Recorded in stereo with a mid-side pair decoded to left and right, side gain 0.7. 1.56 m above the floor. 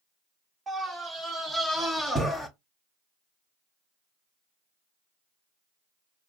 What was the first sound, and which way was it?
A scream, 30° right.